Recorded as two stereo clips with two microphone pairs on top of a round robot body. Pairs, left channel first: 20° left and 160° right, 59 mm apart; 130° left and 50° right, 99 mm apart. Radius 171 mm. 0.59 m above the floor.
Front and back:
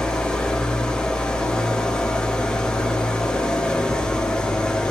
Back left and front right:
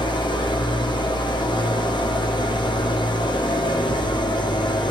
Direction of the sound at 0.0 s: 100° left.